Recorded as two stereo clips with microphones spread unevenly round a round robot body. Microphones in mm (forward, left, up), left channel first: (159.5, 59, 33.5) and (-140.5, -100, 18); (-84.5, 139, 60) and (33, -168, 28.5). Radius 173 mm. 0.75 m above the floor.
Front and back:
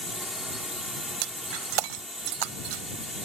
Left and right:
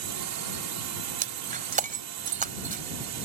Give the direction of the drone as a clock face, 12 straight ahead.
2 o'clock.